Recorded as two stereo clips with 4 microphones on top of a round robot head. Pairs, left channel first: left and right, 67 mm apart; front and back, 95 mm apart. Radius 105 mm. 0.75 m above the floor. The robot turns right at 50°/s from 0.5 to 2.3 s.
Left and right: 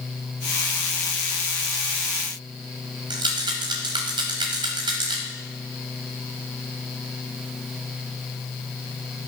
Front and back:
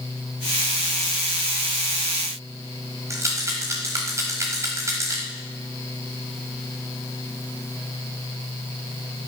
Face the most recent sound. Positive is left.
turn(degrees=-115)